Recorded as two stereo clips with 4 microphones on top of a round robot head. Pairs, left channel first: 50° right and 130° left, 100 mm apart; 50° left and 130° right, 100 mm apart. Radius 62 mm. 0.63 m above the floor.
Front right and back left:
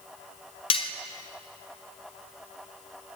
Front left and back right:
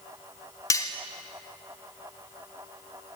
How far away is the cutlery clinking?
About 1.3 m.